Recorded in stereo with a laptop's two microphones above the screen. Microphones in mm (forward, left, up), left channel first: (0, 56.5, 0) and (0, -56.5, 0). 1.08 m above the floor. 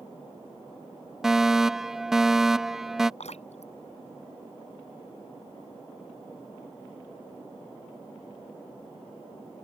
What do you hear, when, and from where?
1.2 s a fire alarm: 5° right (ahead or behind)
3.2 s dripping: 70° left (ahead or behind)